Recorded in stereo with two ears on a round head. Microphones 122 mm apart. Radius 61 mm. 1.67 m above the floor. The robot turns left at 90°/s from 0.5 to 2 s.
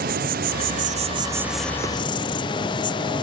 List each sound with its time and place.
0.0 s an insect: 85° right, 0.7 m; by 3.2 s 140° left, 0.7 m